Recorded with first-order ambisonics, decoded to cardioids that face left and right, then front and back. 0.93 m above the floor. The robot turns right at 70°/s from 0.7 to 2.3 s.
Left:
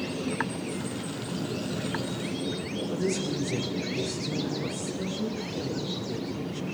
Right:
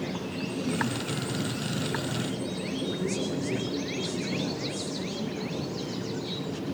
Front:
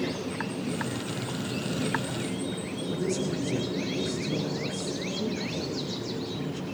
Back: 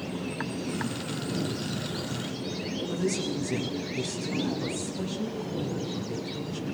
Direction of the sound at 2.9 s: 165° right.